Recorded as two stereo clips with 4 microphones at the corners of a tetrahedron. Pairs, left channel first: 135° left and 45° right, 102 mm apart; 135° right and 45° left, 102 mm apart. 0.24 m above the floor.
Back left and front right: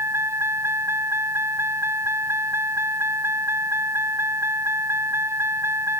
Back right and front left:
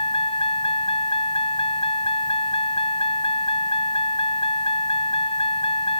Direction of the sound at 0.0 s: 110° right.